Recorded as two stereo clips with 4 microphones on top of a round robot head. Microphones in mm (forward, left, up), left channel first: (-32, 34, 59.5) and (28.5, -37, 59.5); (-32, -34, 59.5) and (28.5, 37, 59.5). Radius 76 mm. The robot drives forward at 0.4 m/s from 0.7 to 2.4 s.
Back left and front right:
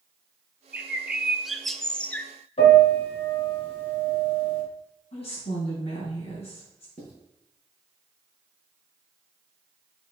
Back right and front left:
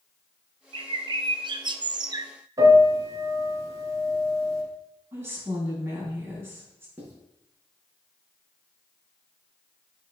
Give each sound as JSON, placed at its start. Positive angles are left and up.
{"t": 0.7, "sound": "a bird", "azimuth_deg": 25, "distance_m": 0.9}
{"t": 2.6, "sound": "a piano", "azimuth_deg": 110, "distance_m": 4.5}
{"t": 5.1, "sound": "a woman speaking", "azimuth_deg": 115, "distance_m": 4.0}
{"t": 7.0, "sound": "writing", "azimuth_deg": 120, "distance_m": 4.0}